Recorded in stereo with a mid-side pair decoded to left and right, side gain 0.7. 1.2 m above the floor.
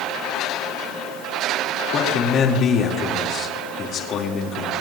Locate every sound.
1.9 s a man speaking: 45° left, 3 m